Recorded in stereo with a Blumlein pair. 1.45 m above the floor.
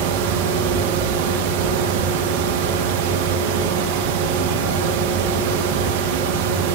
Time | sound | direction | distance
0.0 | a fan | 50° right | 2.0 m